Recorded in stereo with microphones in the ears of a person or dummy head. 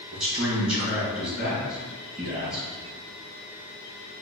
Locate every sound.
0.1 s a man speaking: centre (ahead or behind), 1.6 m